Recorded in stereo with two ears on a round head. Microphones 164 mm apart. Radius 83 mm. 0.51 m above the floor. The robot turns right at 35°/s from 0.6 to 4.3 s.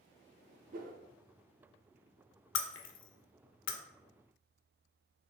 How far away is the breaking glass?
About 0.5 m.